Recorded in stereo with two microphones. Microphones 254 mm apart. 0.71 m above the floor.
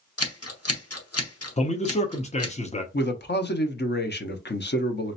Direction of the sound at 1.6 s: 25° left (ahead or behind).